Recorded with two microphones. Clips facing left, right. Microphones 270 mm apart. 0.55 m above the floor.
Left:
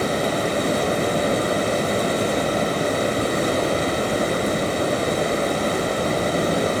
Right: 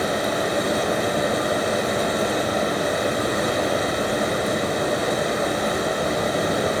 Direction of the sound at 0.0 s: 30° left (ahead or behind).